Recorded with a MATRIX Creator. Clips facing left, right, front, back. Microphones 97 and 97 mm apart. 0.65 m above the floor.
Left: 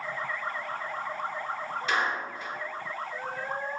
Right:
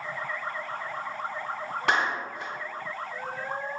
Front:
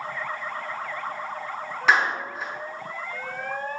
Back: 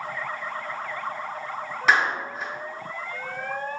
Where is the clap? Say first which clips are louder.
Right 3 dB, even; 95° right, 2.5 m.